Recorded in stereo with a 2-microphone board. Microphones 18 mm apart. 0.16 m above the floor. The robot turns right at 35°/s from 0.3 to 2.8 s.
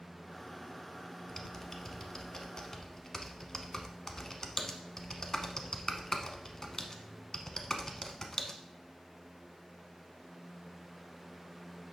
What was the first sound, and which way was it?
Typing on a keyboard, 15° left (ahead or behind).